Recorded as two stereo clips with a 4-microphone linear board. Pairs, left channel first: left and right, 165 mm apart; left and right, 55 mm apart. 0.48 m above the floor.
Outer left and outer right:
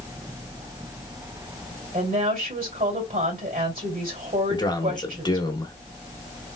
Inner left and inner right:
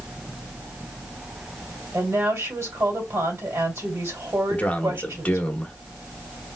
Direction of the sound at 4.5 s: 25° left (ahead or behind).